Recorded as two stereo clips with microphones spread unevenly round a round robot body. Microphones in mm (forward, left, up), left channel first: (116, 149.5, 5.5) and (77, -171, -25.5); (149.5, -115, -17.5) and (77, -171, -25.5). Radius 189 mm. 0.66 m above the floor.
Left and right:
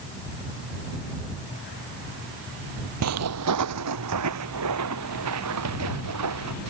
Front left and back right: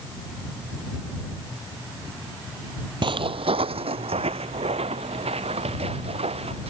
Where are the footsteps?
140° right; by 6.7 s 150° right.